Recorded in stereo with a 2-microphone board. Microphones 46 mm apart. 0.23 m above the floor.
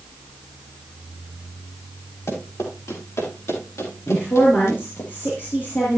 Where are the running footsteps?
80° left, 8.5 m; by 5.1 s 90° left, 7 m.